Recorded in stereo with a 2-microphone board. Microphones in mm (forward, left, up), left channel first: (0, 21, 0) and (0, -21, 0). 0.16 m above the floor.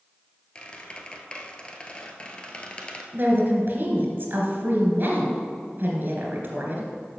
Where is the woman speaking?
50° right (ahead or behind), 2.5 m.